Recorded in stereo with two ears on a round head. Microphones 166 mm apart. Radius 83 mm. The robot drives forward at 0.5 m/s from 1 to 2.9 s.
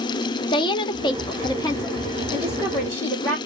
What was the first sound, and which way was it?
A woman speaking, 25° left (ahead or behind).